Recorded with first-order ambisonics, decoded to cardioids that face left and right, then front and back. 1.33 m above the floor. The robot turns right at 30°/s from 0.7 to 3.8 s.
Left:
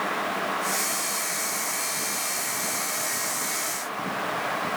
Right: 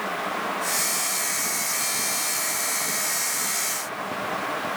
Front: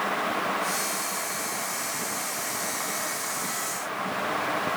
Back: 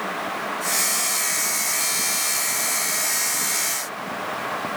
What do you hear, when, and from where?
Only background noise.